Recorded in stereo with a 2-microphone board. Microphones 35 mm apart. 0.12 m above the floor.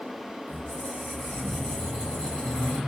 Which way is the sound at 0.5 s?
35° left (ahead or behind).